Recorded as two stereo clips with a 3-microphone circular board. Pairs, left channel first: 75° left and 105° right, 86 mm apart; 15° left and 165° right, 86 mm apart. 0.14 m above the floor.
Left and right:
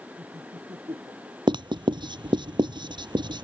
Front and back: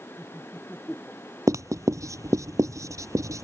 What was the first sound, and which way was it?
Laughter, 65° right.